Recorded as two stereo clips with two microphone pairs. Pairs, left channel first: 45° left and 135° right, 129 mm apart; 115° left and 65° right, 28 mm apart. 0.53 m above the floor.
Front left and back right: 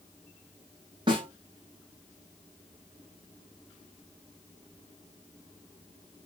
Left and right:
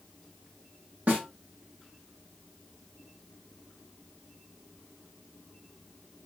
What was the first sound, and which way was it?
A snare drum, 80° right.